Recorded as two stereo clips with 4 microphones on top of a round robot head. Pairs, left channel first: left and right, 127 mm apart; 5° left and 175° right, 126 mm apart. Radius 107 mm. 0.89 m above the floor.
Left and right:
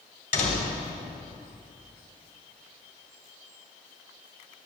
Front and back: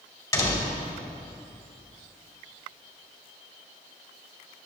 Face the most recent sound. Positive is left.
turn(degrees=75)